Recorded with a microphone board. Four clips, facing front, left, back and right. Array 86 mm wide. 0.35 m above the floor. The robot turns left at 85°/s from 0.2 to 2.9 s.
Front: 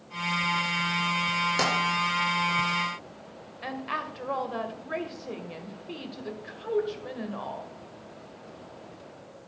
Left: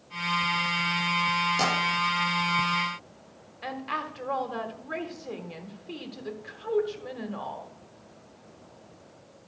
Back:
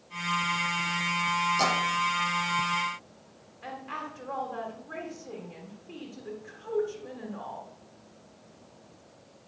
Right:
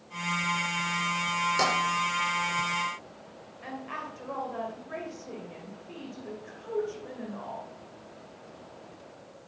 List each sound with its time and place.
1.6 s tapping: 10° right, 5.5 m; by 1.8 s 25° right, 5.5 m
3.6 s a woman speaking: 45° left, 1.3 m